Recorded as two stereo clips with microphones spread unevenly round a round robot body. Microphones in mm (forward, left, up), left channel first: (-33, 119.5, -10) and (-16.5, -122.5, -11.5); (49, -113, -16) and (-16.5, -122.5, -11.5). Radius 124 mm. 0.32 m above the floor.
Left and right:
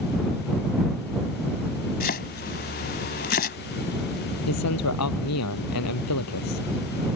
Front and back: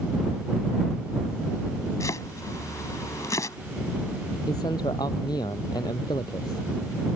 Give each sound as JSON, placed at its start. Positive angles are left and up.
{"t": 2.0, "sound": "chopping", "azimuth_deg": 45}
{"t": 4.5, "sound": "a man speaking", "azimuth_deg": 65}